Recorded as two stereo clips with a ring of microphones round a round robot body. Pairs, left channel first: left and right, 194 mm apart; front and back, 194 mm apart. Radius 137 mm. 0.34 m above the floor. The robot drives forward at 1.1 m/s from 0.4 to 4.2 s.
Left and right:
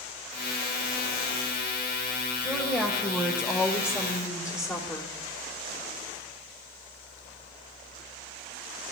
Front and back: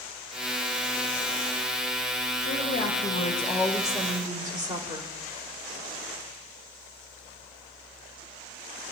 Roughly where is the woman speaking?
Ahead.